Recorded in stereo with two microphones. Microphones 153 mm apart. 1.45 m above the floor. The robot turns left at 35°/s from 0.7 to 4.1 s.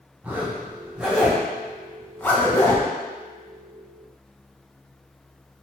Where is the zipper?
10° right (ahead or behind), 0.6 m; by 2.9 s 20° left (ahead or behind), 0.6 m.